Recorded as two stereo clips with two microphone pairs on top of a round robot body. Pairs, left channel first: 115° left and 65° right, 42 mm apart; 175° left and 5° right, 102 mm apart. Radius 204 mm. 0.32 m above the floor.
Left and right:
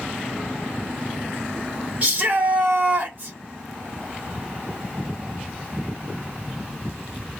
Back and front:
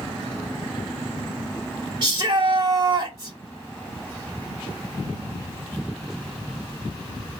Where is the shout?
20° right, 1.7 m.